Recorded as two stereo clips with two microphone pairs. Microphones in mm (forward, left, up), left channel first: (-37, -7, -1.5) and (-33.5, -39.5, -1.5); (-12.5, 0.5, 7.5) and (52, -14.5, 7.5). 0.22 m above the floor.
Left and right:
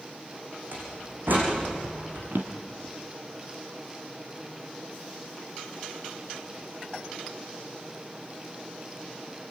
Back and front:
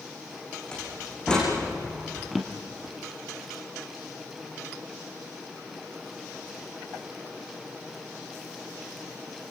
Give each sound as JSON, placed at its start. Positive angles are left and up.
{"t": 0.7, "sound": "a door slam", "azimuth_deg": -115, "distance_m": 8.0}
{"t": 2.3, "sound": "a drawer", "azimuth_deg": -100, "distance_m": 2.5}